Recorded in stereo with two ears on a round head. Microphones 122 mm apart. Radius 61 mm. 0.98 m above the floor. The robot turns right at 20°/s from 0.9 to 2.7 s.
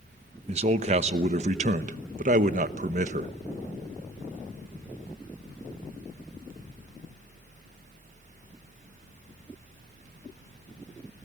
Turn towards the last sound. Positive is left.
turn(degrees=-80)